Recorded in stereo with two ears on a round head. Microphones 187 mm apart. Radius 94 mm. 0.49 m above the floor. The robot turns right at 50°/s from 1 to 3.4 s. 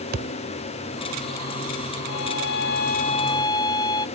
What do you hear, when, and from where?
0.1 s a thud: 45° right (ahead or behind)
2.1 s a violin: 95° left; by 4.1 s 160° left